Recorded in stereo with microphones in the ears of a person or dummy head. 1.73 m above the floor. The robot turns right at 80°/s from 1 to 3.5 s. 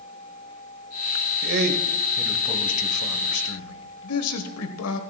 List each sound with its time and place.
1.4 s a man speaking: 75° right, 1.2 m; by 5.0 s 95° left, 1.2 m